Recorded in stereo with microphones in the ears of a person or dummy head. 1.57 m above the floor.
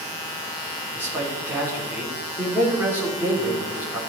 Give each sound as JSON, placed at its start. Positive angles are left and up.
{"t": 0.9, "sound": "a man speaking", "side_deg": -10, "distance_m": 3.5}